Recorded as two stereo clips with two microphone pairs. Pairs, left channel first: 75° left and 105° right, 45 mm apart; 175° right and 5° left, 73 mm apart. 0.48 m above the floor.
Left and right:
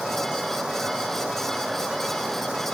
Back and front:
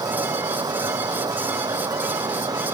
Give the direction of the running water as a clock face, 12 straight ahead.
1 o'clock.